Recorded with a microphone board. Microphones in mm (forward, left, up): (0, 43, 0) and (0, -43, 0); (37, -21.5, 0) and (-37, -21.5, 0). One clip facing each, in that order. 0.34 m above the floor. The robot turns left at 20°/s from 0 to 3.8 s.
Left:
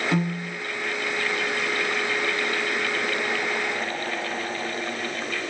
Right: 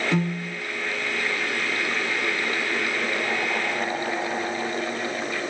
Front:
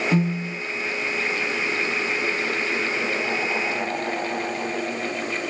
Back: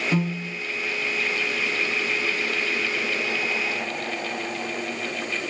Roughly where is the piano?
Ahead.